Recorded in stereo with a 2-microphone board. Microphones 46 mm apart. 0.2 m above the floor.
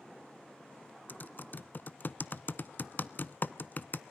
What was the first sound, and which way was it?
Typing on a keyboard, 45° left (ahead or behind).